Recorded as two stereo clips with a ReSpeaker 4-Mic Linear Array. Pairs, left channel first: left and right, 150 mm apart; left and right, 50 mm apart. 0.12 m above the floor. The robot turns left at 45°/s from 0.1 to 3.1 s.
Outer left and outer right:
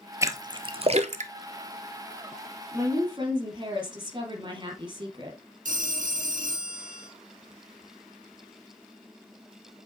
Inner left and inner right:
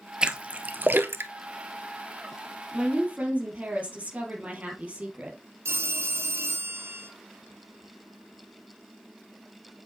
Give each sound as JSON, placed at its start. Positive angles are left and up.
{"t": 0.2, "sound": "a splash", "side_deg": -20, "distance_m": 0.7}
{"t": 2.7, "sound": "a woman speaking", "side_deg": -15, "distance_m": 3.0}
{"t": 5.7, "sound": "a phone ringing", "side_deg": -65, "distance_m": 1.6}